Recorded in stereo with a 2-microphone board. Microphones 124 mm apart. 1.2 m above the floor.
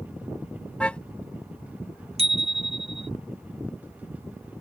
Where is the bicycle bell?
60° right (ahead or behind).